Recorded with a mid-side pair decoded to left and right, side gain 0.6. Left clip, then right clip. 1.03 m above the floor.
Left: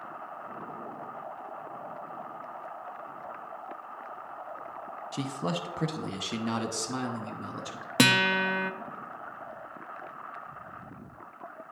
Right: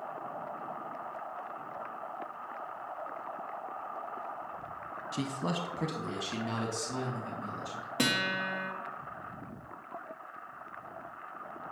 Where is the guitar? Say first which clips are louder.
Left 7 dB; 55° left, 0.6 m.